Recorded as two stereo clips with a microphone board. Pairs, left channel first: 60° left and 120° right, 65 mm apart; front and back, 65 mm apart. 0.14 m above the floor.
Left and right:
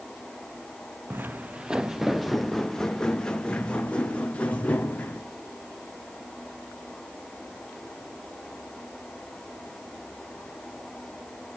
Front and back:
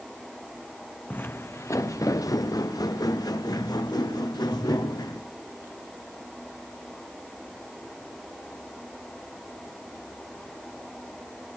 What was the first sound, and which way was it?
Footsteps, 65° right.